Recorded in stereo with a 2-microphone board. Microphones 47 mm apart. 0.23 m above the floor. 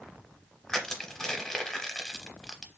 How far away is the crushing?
About 0.8 m.